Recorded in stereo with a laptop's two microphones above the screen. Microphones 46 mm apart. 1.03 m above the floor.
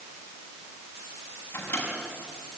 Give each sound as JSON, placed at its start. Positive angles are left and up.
{"t": 1.5, "sound": "a microwave", "side_deg": 40, "distance_m": 5.5}